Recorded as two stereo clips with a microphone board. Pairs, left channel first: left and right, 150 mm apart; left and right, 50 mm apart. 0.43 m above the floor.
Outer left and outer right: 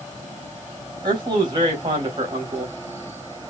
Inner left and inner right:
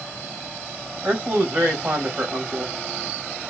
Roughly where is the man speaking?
Right.